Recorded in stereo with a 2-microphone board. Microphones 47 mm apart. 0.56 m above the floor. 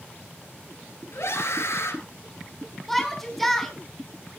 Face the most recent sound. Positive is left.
turn(degrees=5)  # may be behind; listen again after turning